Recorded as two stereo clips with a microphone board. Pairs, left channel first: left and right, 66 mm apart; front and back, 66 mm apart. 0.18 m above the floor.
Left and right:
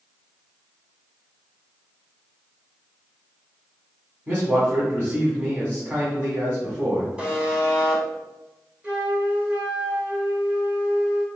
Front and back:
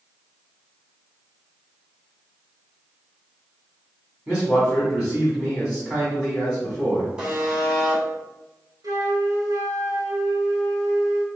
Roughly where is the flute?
Behind.